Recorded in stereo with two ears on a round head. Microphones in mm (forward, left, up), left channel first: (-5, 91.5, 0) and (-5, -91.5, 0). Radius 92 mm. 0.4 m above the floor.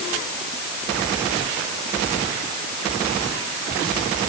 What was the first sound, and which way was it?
Only background noise.